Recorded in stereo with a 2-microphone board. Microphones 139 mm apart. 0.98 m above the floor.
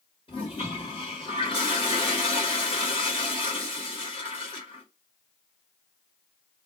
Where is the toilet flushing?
40° left (ahead or behind), 1.4 m.